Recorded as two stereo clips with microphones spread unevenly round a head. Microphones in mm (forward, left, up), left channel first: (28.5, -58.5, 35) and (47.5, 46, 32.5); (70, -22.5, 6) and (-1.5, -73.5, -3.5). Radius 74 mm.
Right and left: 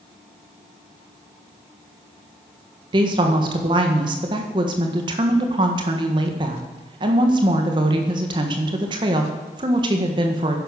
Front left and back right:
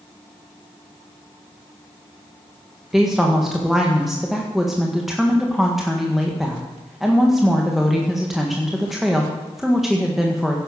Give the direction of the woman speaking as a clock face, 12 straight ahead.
8 o'clock.